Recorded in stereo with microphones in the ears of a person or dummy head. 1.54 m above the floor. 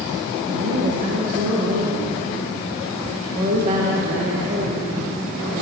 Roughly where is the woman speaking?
Right.